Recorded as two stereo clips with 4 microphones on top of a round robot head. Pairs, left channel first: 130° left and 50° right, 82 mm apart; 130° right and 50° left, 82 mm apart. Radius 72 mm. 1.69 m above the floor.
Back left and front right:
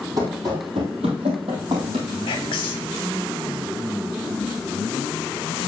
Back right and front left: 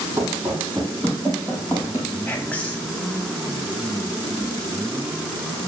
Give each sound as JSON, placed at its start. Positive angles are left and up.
{"t": 0.2, "sound": "running footsteps", "azimuth_deg": -10, "distance_m": 2.0}
{"t": 2.3, "sound": "whispering", "azimuth_deg": 155, "distance_m": 0.9}